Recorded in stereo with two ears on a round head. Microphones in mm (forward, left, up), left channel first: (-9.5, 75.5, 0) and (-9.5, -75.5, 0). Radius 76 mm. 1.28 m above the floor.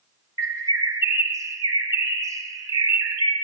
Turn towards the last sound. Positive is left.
turn(degrees=-20)  # may be behind; listen again after turning